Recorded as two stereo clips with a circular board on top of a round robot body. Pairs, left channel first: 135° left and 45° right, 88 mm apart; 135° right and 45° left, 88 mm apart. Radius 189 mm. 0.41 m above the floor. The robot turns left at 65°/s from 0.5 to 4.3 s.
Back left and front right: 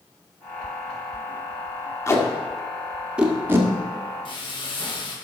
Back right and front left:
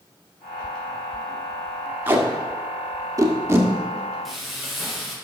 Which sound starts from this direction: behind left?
Frying, at 4.2 s.